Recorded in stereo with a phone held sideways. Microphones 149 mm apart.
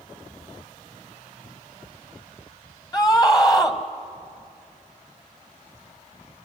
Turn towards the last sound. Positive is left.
turn(degrees=25)  # may be behind; listen again after turning